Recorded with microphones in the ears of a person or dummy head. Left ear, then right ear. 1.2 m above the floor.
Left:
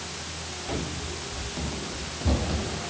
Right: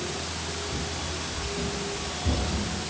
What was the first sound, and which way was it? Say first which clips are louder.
Running footsteps: right 1 dB; 60° left (ahead or behind).